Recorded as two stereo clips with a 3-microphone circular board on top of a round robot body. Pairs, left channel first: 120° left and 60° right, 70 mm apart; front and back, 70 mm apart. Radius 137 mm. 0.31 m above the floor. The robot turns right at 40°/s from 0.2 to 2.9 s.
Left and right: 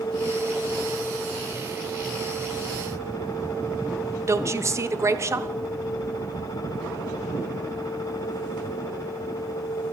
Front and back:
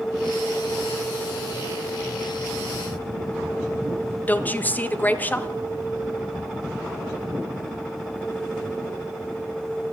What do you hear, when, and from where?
4.3 s a woman speaking: 55° right, 1.0 m